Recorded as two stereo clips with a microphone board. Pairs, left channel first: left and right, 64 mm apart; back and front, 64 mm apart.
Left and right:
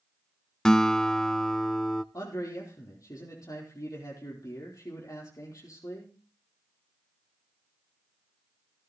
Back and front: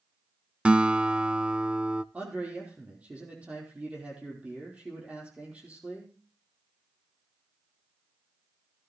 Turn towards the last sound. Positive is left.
turn(degrees=65)